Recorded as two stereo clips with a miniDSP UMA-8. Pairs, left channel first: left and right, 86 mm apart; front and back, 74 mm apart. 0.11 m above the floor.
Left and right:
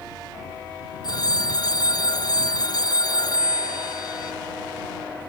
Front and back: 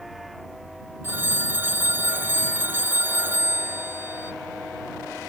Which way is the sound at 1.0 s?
120° left.